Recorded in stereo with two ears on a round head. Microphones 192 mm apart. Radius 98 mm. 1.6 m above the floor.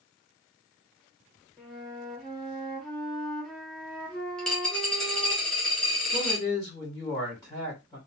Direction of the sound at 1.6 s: 5° left (ahead or behind).